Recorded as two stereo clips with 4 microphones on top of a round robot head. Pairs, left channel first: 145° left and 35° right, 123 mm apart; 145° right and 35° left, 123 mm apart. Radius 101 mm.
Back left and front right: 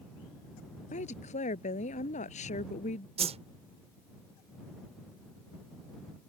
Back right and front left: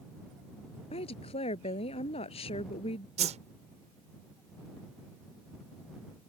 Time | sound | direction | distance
0.9 | a woman speaking | 175° left | ?
3.2 | a whoosh | 5° left | ?